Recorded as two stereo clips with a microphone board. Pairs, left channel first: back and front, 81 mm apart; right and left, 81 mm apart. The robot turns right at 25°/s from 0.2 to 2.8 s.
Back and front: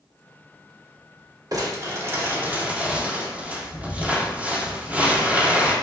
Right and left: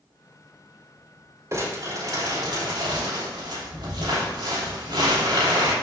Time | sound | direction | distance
1.5 | crumpling | 40° left | 3 m